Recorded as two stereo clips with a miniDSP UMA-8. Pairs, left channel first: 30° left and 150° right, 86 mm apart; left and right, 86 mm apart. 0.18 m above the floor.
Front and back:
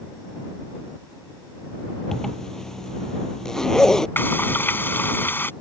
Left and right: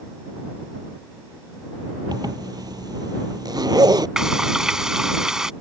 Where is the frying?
15° right.